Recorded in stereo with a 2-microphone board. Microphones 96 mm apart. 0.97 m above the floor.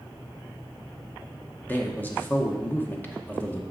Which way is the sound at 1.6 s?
20° left (ahead or behind).